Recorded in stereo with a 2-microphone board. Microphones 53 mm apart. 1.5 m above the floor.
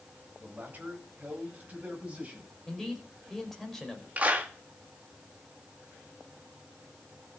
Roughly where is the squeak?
No squeak in this recording.